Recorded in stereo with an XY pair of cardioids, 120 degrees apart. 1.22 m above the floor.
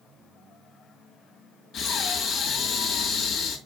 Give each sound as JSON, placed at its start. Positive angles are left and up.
{"t": 1.7, "sound": "breathing", "azimuth_deg": 70, "distance_m": 2.0}